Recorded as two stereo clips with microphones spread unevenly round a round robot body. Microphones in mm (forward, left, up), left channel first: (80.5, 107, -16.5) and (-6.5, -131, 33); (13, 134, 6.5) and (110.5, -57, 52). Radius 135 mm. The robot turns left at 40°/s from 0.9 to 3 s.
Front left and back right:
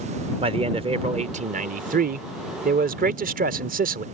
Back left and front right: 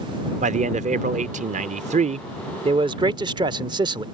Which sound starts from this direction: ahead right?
A man speaking, at 0.4 s.